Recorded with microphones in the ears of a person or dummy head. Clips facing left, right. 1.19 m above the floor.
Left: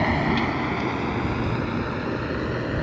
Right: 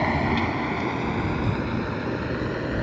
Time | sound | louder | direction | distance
0.0 | a vehicle | left 1 dB | 10° left (ahead or behind) | ?